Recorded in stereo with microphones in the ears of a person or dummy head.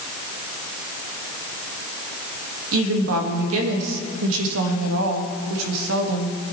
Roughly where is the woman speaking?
Right.